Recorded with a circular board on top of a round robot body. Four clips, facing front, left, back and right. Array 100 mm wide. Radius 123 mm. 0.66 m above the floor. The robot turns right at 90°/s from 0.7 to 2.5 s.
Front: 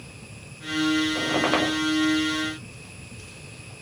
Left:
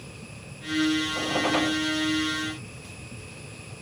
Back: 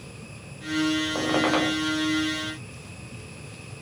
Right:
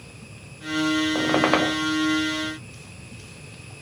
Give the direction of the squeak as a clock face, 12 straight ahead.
4 o'clock.